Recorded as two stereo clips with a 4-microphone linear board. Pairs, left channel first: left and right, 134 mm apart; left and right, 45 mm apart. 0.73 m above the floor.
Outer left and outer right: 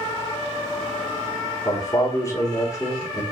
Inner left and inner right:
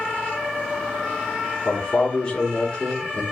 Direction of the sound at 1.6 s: 25° left (ahead or behind).